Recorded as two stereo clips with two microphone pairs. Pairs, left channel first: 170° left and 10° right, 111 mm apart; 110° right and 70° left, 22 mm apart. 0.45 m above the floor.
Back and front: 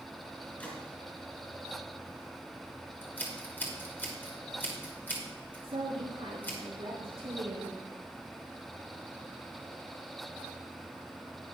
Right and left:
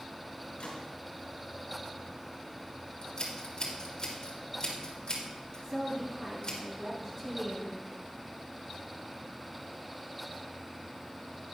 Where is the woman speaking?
10° left, 3.5 m.